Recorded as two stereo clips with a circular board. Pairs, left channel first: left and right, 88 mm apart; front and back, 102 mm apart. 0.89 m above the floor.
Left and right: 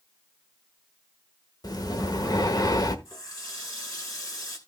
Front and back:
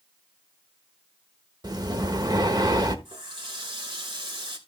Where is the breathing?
130° left, 1.2 m.